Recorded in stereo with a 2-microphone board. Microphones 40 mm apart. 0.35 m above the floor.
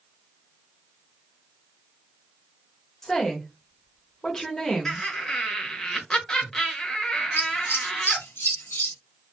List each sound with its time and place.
3.0 s a woman speaking: 15° left (ahead or behind), 0.9 m
4.8 s laughter: 15° left (ahead or behind), 1.0 m
7.4 s scissors: 75° left (ahead or behind), 0.8 m